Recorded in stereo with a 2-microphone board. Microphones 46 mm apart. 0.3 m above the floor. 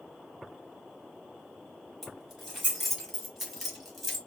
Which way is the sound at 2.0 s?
5° right (ahead or behind).